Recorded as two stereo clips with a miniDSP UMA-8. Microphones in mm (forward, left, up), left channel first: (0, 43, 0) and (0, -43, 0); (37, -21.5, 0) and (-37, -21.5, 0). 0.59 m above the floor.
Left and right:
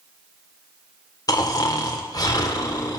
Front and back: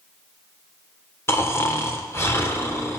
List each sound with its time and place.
1.3 s snoring: 50° left, 1.8 m